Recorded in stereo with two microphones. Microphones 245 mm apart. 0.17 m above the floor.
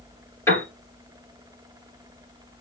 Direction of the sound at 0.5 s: 10° left (ahead or behind).